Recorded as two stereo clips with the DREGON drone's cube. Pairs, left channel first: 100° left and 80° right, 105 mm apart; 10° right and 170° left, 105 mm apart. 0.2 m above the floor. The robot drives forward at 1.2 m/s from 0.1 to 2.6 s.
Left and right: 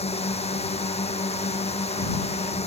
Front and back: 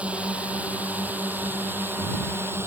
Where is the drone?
90° left; by 2.7 s 100° left.